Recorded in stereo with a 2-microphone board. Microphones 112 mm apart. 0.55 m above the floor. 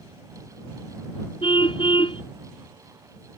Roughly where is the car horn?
Left.